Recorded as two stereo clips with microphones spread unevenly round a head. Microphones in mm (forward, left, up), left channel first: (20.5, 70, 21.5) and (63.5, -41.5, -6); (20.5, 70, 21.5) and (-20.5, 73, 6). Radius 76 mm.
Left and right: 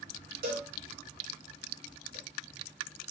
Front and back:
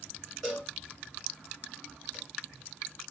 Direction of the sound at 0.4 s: 85° right.